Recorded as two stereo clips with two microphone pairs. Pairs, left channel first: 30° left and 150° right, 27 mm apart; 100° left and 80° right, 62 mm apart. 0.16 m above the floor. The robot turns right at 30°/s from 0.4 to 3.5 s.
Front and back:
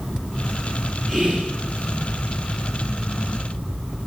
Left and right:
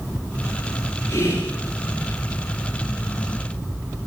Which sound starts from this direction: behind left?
Whispering, at 1.1 s.